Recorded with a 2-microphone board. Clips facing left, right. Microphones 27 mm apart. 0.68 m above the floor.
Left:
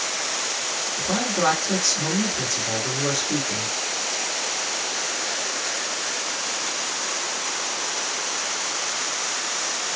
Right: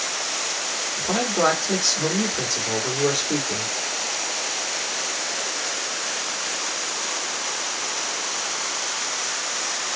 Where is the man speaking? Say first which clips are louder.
Right 2 dB; 50° right (ahead or behind), 1.5 m.